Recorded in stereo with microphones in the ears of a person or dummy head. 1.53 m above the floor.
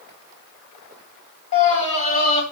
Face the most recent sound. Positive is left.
turn(degrees=35)  # may be behind; listen again after turning